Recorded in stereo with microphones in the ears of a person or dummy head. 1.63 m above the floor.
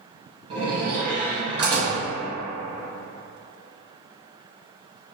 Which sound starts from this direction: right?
A door slam, at 0.5 s.